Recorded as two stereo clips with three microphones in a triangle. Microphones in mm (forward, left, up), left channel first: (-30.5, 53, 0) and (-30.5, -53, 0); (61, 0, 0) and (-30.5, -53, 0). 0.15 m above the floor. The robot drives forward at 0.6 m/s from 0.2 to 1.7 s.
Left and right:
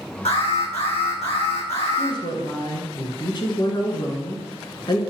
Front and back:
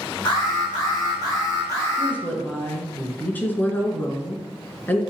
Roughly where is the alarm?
Left.